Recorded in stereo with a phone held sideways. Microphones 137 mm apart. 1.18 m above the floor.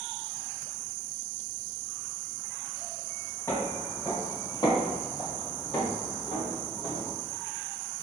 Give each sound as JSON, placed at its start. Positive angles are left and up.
{"t": 3.5, "sound": "footsteps", "side_deg": 20, "distance_m": 1.5}